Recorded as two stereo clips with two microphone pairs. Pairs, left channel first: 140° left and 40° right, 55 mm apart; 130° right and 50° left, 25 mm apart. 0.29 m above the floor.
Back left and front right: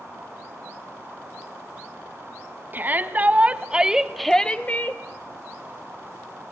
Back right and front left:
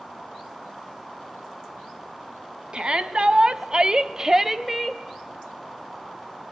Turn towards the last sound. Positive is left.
turn(degrees=145)